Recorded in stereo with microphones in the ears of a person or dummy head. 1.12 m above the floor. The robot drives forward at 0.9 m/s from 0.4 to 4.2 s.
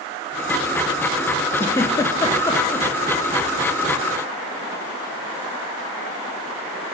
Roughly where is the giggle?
Centre.